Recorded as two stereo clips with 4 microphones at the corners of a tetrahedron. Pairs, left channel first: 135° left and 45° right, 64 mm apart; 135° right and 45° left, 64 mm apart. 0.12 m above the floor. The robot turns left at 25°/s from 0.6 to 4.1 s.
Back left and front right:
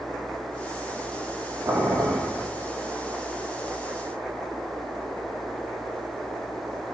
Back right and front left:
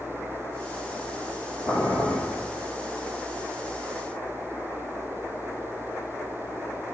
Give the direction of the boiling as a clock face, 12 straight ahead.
3 o'clock.